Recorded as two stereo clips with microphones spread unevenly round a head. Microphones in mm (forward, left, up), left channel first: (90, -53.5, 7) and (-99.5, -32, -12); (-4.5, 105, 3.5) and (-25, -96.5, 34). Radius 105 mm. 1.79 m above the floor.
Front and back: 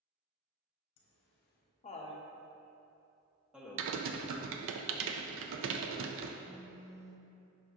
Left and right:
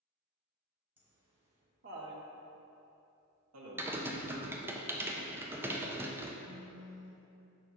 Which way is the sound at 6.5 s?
110° right.